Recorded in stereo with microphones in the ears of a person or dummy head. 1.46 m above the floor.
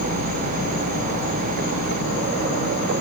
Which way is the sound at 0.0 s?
85° left.